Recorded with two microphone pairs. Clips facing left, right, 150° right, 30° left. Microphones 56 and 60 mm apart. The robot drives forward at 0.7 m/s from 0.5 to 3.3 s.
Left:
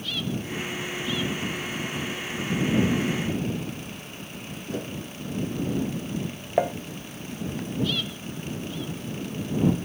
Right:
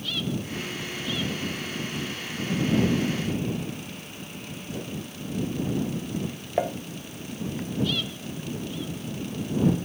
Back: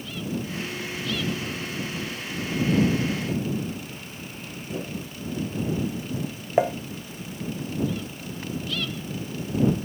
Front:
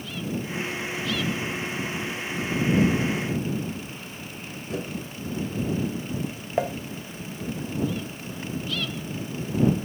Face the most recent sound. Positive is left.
turn(degrees=155)